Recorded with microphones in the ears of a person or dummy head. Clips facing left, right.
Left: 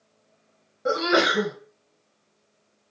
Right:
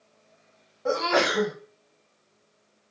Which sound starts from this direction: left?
A sneeze, at 0.8 s.